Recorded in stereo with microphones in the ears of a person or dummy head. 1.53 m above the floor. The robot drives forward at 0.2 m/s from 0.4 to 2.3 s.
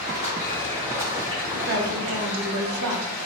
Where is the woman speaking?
65° right (ahead or behind), 0.6 m; by 3.2 s 75° right (ahead or behind), 0.5 m.